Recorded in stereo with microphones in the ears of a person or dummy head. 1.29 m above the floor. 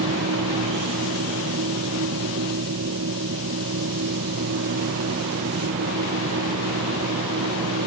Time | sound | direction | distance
0.0 | a machine running | 70° right (ahead or behind) | ?